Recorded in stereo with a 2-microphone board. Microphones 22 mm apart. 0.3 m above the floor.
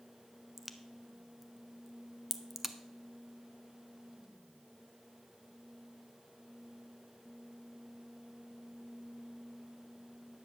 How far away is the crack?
About 0.8 m.